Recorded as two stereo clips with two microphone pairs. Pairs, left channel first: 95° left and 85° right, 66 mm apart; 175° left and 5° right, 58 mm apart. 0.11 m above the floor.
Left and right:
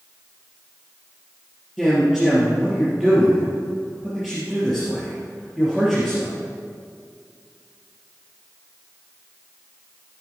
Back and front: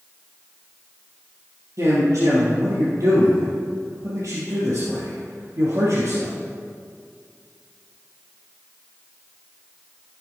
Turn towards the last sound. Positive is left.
turn(degrees=5)